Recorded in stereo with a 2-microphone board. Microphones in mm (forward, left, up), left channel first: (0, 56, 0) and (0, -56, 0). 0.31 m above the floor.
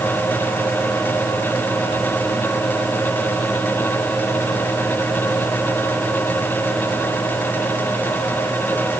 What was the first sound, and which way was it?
Only background noise.